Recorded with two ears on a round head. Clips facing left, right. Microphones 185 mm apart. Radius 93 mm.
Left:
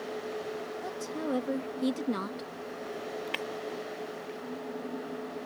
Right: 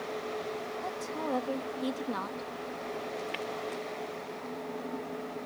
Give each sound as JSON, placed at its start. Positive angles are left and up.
{"t": 0.8, "sound": "a woman speaking", "side_deg": 15}
{"t": 3.3, "sound": "breaking glass", "side_deg": 65}